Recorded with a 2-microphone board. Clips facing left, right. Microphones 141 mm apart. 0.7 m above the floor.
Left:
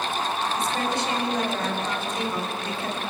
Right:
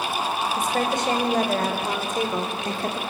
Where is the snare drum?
No snare drum in this recording.